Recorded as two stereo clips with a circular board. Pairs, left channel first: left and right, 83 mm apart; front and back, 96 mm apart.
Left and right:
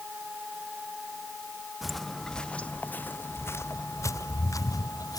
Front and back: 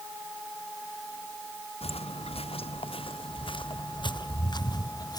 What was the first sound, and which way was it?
Footsteps, straight ahead.